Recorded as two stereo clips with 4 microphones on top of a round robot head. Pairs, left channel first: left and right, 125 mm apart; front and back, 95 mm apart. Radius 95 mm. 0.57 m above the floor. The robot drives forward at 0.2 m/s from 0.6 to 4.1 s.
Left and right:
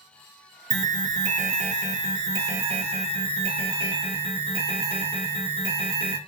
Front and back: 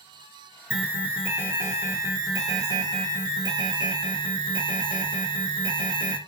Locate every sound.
0.7 s an alarm: 100° right, 0.8 m; by 6.2 s 140° right, 1.1 m